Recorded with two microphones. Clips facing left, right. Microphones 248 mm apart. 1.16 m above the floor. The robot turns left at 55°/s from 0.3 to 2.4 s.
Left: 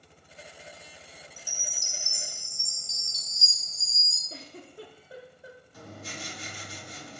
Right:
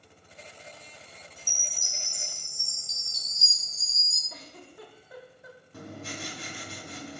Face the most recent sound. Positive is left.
turn(degrees=-65)  # may be behind; listen again after turning